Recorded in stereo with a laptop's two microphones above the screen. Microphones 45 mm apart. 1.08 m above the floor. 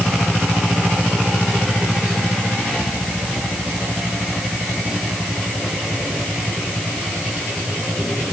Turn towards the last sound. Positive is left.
No sound to turn to.